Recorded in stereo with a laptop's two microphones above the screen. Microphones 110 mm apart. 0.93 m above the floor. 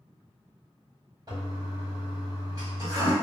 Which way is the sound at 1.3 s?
40° right (ahead or behind).